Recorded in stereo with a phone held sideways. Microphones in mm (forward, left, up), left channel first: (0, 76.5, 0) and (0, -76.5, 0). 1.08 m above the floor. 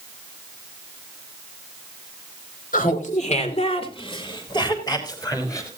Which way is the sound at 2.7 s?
60° left (ahead or behind).